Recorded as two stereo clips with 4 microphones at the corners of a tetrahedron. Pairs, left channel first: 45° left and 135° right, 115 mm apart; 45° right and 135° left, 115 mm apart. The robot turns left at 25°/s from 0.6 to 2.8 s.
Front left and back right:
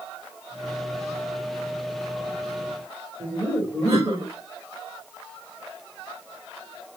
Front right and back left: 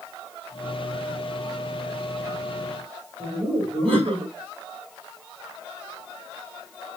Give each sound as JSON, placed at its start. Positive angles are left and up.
{"t": 3.2, "sound": "laughter", "azimuth_deg": 165, "distance_m": 3.5}